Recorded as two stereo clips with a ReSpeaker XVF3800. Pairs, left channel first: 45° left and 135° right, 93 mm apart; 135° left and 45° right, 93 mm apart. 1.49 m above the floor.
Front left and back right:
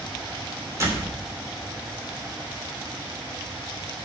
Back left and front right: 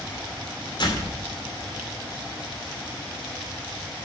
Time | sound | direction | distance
0.8 | a door slam | 170° left | 3 m